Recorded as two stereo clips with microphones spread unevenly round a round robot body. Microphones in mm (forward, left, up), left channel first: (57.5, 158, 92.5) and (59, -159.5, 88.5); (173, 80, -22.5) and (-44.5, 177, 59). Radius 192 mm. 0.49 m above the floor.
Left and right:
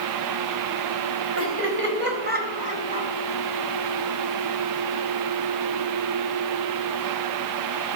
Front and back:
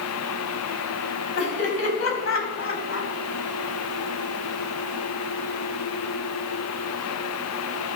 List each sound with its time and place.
1.4 s laughter: 45° right, 4 m; by 3.1 s 15° right, 3.5 m